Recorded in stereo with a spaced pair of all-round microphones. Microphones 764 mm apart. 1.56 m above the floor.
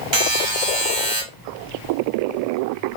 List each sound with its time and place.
0.1 s a buzzer: 35° right (ahead or behind), 1.3 m